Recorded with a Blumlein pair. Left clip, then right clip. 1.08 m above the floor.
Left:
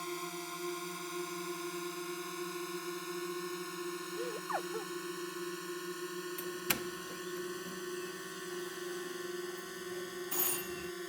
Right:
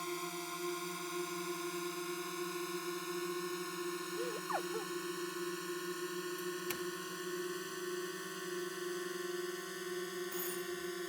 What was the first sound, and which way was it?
A drone, straight ahead.